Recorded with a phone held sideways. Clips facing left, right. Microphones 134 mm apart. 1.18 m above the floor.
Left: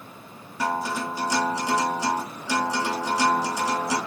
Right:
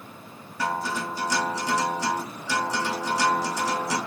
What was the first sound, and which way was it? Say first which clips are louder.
A guitar: left 2 dB; 15° left (ahead or behind).